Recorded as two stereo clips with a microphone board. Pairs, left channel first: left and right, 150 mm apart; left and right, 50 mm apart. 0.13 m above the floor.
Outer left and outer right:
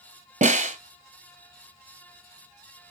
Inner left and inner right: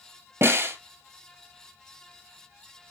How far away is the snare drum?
About 1.0 m.